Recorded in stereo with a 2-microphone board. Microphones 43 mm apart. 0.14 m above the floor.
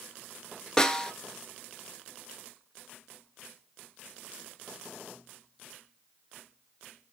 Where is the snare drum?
10° left (ahead or behind), 0.6 m.